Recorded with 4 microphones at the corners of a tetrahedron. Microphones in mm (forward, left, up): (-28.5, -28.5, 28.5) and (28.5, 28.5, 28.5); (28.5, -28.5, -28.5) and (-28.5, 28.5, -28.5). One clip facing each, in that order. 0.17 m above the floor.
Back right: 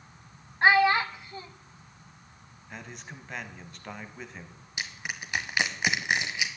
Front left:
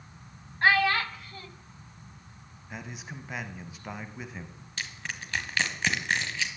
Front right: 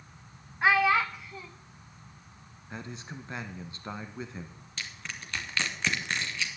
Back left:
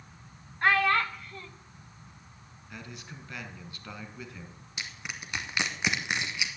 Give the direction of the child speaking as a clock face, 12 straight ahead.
4 o'clock.